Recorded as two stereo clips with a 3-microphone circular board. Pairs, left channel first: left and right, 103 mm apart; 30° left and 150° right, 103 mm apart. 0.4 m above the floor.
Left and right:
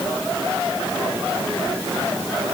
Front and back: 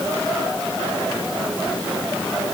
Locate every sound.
Only background noise.